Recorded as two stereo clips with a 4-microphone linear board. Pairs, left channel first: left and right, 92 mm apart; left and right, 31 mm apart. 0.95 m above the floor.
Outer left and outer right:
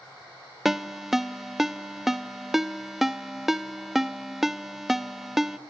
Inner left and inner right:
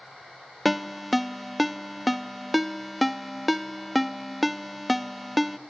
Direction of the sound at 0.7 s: Centre (ahead or behind).